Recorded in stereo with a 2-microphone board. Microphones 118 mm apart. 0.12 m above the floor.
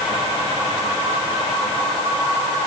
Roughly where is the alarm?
No alarm in this recording.